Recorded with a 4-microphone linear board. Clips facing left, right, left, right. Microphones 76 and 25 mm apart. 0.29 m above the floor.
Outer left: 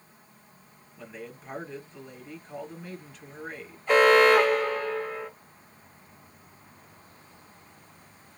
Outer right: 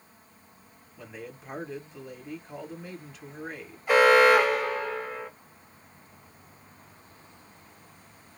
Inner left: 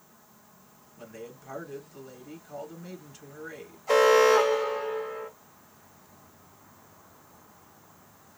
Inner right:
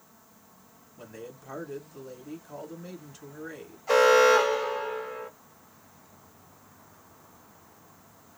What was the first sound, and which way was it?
A man speaking, 5° right (ahead or behind).